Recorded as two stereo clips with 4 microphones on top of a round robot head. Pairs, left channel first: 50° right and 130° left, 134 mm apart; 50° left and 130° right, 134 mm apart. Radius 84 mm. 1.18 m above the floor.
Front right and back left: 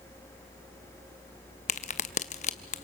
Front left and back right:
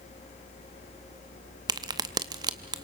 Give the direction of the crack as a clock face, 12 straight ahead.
3 o'clock.